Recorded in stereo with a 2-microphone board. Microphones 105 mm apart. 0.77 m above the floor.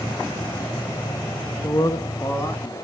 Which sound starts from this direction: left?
A man speaking, at 1.6 s.